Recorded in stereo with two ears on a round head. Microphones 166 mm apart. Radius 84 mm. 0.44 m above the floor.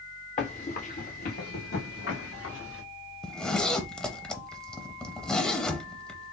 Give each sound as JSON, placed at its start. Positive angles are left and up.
{"t": 0.4, "sound": "running footsteps", "side_deg": 35, "distance_m": 1.9}
{"t": 3.2, "sound": "a zipper", "side_deg": 5, "distance_m": 0.6}